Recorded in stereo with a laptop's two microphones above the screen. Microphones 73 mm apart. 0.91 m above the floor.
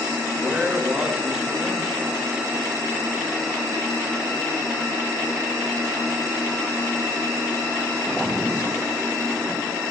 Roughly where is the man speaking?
Centre.